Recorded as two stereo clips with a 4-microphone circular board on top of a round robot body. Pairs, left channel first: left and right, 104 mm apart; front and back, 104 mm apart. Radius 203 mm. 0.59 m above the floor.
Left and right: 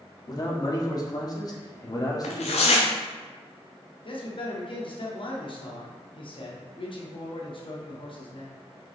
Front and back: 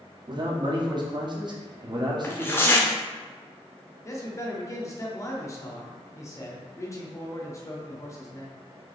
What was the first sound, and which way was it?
A man speaking, 140° left.